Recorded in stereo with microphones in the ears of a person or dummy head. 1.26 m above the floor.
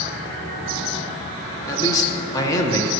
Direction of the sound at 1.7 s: 20° left (ahead or behind).